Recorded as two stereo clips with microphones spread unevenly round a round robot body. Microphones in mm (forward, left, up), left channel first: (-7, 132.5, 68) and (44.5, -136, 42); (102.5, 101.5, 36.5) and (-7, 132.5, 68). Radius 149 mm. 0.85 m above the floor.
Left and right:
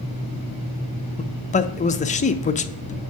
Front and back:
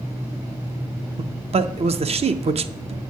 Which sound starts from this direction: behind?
A man speaking, at 1.2 s.